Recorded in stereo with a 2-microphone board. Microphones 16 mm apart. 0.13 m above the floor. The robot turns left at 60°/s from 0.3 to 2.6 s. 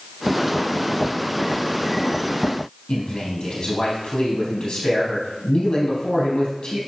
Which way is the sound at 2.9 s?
70° left (ahead or behind).